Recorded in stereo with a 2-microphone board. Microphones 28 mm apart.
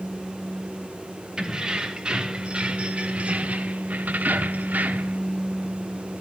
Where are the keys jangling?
30° right (ahead or behind), 2.5 m; by 5.2 s 65° right (ahead or behind), 1.2 m.